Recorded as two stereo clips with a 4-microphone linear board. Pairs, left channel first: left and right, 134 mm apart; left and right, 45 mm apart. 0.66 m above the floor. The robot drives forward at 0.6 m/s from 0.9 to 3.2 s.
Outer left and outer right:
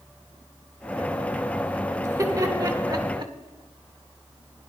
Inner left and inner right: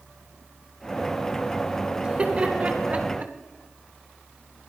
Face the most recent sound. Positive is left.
turn(degrees=-35)  # may be behind; listen again after turning